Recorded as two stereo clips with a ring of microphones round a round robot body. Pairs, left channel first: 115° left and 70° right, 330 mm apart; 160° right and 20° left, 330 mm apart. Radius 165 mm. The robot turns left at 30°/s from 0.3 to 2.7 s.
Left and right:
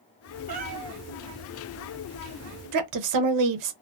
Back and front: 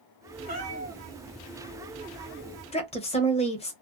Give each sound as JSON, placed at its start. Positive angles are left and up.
{"t": 0.5, "sound": "a cat meowing", "azimuth_deg": -40, "distance_m": 0.9}
{"t": 2.7, "sound": "a woman speaking", "azimuth_deg": -85, "distance_m": 0.6}